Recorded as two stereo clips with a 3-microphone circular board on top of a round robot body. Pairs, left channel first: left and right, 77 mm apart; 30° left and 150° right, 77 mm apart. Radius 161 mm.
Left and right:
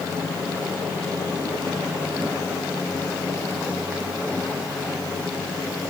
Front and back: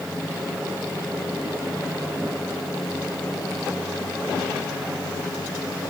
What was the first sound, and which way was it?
Only background noise.